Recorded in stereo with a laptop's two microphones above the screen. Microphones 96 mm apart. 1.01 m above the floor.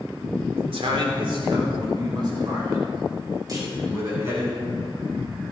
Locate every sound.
0.6 s a man speaking: 75° right (ahead or behind), 2.5 m; by 4.5 s 35° right (ahead or behind), 6.5 m
3.5 s a clunk: 45° right (ahead or behind), 3.5 m